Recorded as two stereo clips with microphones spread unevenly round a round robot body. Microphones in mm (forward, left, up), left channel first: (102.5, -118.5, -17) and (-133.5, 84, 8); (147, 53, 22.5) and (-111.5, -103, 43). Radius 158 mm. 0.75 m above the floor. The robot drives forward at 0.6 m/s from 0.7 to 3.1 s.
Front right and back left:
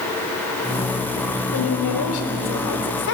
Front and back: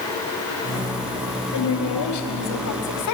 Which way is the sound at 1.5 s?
5° left.